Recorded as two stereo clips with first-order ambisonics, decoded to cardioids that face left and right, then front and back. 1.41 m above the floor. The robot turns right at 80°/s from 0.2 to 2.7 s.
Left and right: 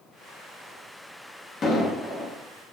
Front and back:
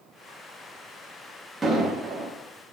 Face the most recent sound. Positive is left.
turn(degrees=-170)